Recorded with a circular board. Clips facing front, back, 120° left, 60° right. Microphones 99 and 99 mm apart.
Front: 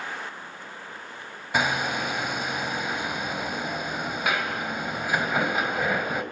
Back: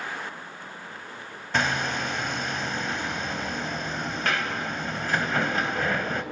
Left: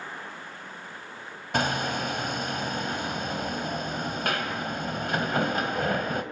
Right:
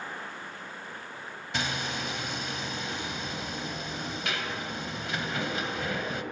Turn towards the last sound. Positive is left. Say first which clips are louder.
# front 1 dB, left 7 dB
turn(degrees=80)